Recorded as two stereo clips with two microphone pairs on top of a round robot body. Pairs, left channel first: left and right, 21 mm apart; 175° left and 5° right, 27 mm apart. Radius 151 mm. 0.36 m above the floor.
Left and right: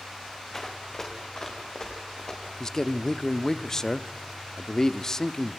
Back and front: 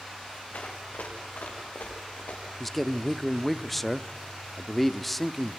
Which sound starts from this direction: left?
A man speaking, at 2.6 s.